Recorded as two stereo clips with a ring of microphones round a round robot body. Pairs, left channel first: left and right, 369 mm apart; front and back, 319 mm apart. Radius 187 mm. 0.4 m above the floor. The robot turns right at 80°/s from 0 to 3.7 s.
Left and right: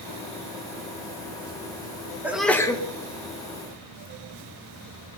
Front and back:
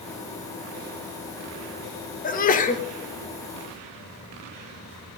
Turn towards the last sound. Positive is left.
turn(degrees=105)